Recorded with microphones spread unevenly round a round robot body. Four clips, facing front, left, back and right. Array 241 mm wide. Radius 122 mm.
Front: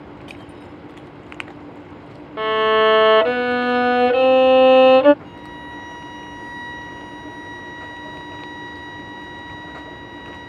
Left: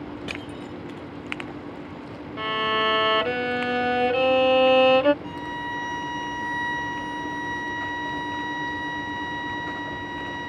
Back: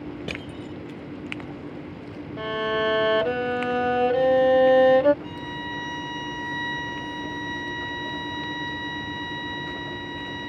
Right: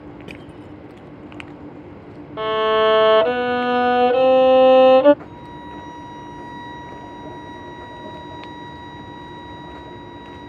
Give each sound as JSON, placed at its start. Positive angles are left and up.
{"t": 0.3, "sound": "crushing", "azimuth_deg": -170}
{"t": 2.4, "sound": "a violin", "azimuth_deg": -20}
{"t": 5.2, "sound": "a violin", "azimuth_deg": 85}